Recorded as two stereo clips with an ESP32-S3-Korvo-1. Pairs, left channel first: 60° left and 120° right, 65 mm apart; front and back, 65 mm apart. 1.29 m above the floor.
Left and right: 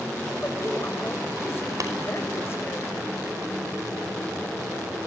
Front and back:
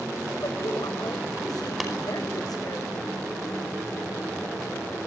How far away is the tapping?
About 5 m.